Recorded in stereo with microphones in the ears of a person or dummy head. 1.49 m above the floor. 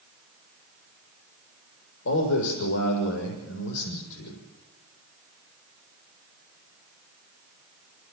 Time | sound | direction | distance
2.0 | a man speaking | 75° left (ahead or behind) | 6.5 m